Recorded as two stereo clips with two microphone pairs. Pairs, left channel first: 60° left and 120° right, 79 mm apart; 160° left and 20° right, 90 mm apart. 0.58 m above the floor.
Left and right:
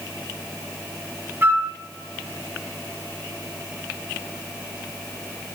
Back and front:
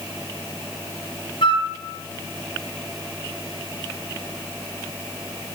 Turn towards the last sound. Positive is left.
turn(degrees=180)